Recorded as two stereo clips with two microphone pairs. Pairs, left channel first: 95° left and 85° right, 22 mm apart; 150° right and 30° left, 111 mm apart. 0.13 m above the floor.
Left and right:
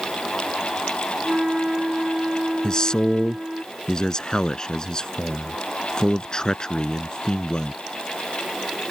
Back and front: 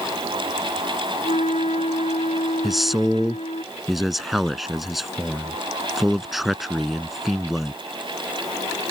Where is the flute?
145° right.